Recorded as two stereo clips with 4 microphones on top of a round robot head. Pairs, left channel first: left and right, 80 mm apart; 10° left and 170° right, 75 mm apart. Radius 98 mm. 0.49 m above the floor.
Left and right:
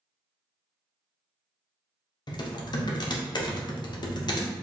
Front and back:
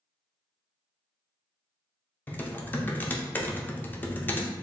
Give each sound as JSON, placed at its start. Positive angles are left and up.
{"t": 2.3, "sound": "typing on a keyboard", "azimuth_deg": 75, "distance_m": 0.7}